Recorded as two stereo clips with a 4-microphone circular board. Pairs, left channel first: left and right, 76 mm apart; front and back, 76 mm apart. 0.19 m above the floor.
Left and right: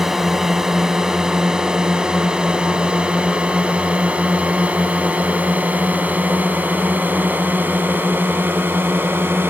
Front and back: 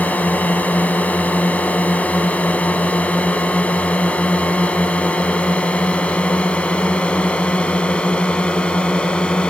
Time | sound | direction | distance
0.0 | a drone | 15° right | ?